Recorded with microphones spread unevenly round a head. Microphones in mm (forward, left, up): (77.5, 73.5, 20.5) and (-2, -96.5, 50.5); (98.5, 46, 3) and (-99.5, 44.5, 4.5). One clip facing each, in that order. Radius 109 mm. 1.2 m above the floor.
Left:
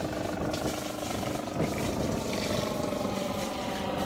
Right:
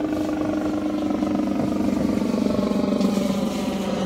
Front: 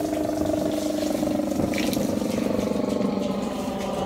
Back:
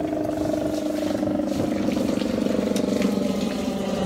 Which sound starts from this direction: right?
A helicopter, at 0.0 s.